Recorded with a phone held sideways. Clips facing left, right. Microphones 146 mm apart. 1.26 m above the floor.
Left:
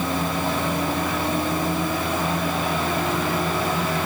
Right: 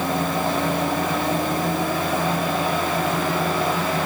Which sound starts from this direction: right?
A fan, at 0.0 s.